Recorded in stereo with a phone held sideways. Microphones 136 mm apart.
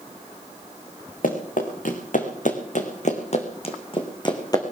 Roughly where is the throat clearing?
No throat clearing in this recording.